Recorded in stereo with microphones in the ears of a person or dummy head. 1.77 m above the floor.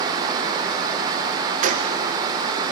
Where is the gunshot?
50° right (ahead or behind), 1.6 m.